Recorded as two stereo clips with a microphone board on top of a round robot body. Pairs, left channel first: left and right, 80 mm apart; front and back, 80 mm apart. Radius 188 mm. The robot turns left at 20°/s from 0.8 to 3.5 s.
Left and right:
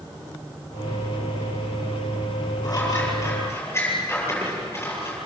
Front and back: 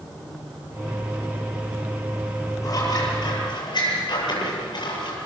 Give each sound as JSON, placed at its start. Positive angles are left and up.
{"t": 2.6, "sound": "scissors", "azimuth_deg": 45, "distance_m": 9.0}